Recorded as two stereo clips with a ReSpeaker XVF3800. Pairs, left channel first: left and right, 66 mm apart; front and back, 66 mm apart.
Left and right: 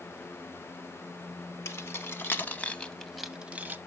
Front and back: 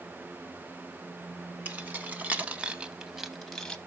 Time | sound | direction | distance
1.6 | keys jangling | 125° left | 1.2 m